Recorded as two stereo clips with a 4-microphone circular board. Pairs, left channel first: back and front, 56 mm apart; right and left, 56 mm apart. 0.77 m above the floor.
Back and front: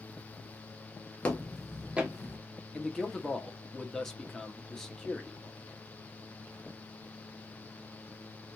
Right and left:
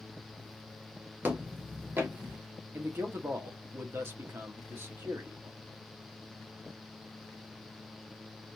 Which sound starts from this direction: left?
A man speaking, at 2.7 s.